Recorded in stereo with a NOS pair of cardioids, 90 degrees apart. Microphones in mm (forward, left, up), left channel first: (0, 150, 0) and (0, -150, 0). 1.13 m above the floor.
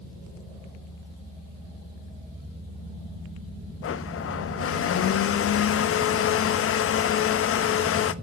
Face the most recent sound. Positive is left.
turn(degrees=45)